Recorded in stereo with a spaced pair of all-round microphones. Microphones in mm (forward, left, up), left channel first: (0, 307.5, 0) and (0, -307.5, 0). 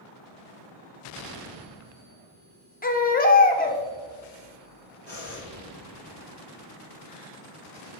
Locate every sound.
2.8 s a baby crying: 15° left (ahead or behind), 0.6 m
5.1 s breathing: 40° right (ahead or behind), 2 m